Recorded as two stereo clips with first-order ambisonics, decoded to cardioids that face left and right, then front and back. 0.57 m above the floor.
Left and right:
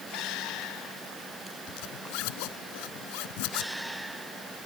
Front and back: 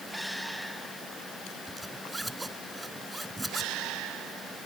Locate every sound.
1.7 s a zipper: 95° left